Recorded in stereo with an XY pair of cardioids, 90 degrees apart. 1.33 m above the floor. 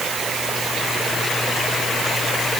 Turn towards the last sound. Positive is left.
No sound to turn to.